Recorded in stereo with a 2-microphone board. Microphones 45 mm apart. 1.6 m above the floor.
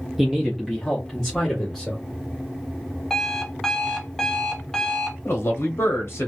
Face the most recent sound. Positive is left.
turn(degrees=65)  # may be behind; listen again after turning